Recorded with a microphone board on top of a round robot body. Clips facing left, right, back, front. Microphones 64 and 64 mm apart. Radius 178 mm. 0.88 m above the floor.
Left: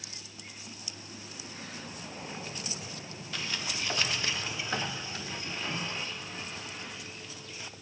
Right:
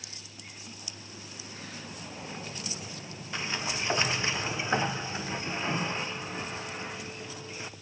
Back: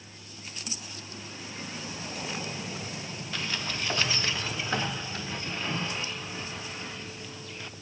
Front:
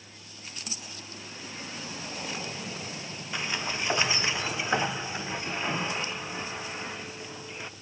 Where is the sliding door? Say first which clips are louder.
Right 3 dB, front 2 dB; 50° right, 0.6 m.